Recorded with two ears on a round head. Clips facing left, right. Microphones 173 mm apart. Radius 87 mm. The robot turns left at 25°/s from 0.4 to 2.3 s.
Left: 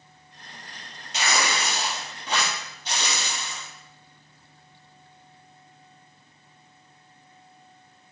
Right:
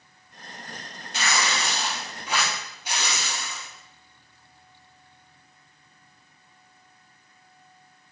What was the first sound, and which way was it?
Tearing paper, 20° left (ahead or behind).